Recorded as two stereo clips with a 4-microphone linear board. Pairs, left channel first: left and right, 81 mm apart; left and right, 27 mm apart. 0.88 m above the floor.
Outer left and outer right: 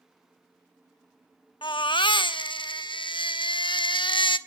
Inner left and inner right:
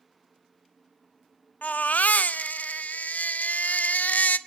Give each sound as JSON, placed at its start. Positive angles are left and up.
{"t": 1.6, "sound": "a baby crying", "side_deg": 80, "distance_m": 0.8}